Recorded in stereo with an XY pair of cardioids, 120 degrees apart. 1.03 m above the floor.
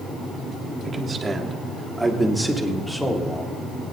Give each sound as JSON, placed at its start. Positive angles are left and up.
{"t": 0.8, "sound": "a man speaking", "azimuth_deg": -35, "distance_m": 1.7}